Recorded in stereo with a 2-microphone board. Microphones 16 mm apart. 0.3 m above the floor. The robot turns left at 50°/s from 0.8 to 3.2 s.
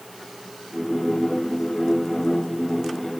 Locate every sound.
Only background noise.